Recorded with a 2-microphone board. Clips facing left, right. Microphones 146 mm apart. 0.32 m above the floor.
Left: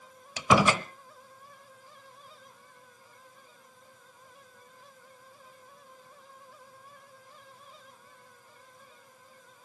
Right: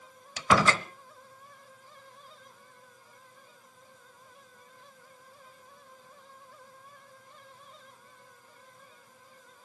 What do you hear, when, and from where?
0.4 s a door slam: 15° left (ahead or behind), 0.8 m